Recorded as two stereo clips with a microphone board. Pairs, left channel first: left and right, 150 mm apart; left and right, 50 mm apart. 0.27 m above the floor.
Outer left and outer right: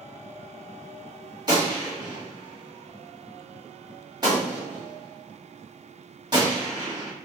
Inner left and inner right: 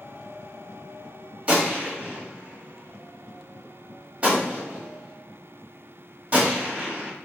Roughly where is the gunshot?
Right.